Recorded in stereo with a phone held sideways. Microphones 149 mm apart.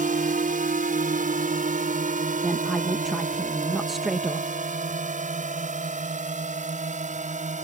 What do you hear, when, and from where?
0.0 s a drone: 70° right (ahead or behind); by 7.7 s 60° right (ahead or behind)
2.4 s a woman speaking: centre (ahead or behind)